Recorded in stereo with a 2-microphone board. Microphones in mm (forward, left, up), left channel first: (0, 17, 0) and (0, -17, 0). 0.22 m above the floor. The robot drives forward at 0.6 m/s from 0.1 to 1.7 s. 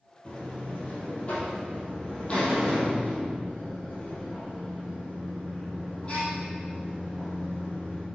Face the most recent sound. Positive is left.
turn(degrees=30)  # may be behind; listen again after turning